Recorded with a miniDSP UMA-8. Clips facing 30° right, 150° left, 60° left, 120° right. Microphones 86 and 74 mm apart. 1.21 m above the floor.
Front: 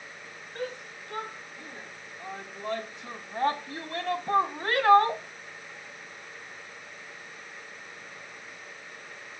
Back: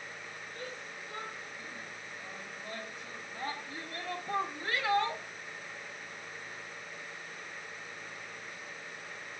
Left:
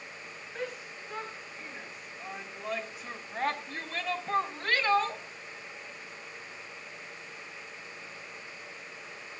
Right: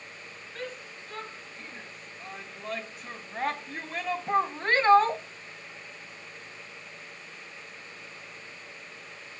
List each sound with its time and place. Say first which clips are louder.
0.6 s a shout: front 10 dB, left 1 dB; 15° right, 4.5 m; by 5.2 s 85° right, 0.9 m